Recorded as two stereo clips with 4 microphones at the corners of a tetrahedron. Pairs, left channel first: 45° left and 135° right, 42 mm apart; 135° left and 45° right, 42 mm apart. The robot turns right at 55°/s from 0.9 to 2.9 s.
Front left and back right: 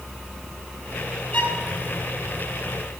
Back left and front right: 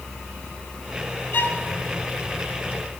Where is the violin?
105° left, 6.5 m; by 1.6 s 120° left, 6.5 m.